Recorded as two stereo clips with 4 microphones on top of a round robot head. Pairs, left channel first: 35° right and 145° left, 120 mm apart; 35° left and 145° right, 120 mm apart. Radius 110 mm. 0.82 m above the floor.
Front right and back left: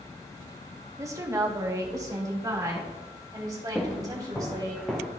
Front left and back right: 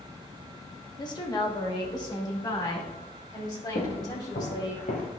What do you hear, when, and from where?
1.0 s a woman speaking: 85° left, 1.4 m; by 4.8 s 90° left, 4 m
3.8 s footsteps: 35° left, 2.5 m; by 5.1 s 55° left, 1.3 m